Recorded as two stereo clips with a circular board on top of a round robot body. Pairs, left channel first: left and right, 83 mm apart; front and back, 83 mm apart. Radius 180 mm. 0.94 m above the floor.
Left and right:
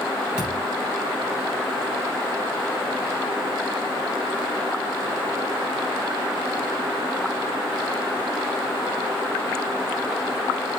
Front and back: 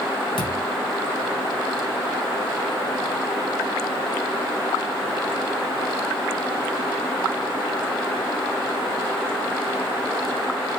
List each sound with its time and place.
0.4 s a thud: 10° right, 7 m